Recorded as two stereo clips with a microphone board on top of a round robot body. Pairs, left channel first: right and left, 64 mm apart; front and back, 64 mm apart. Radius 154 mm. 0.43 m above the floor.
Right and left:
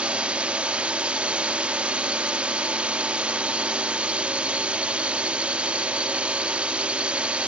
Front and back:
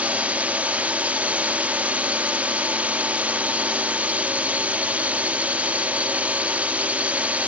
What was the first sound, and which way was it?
A drone, 140° left.